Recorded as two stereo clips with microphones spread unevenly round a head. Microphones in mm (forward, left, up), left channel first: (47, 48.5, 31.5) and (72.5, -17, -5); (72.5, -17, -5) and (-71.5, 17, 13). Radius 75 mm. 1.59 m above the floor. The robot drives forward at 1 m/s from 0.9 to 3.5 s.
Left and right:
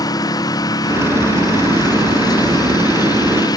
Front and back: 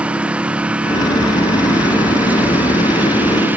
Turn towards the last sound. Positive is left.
turn(degrees=85)